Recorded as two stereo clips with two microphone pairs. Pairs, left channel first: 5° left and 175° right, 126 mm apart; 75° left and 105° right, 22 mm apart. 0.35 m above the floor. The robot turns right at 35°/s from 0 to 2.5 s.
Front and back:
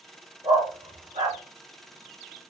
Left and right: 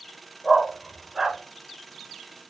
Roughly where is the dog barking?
Behind left.